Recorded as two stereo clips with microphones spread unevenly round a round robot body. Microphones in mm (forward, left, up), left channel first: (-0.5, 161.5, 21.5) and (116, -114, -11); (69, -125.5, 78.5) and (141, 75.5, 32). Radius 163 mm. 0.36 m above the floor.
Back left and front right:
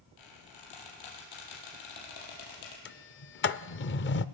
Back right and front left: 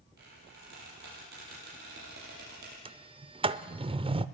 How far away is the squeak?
About 5.5 m.